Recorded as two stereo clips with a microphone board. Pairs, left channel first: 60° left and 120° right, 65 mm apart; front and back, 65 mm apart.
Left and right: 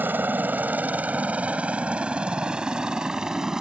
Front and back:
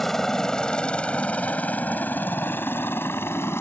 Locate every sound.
0.0 s a helicopter: 80° right; by 3.6 s 40° right